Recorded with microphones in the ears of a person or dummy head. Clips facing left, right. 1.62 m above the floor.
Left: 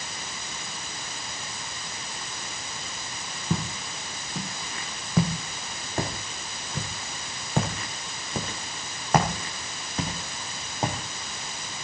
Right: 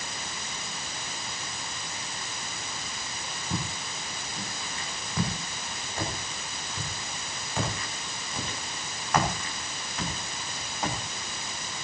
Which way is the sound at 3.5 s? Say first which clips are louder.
Left 5 dB; 65° left (ahead or behind).